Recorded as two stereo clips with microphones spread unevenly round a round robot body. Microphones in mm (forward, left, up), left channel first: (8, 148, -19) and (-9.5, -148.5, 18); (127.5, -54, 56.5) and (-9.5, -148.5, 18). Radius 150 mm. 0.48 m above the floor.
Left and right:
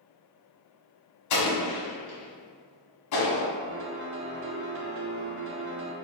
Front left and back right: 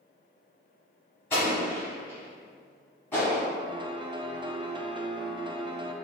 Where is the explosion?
120° left, 1.5 m.